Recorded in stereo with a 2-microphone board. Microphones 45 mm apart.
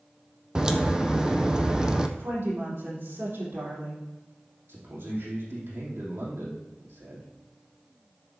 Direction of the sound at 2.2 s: 70° right (ahead or behind).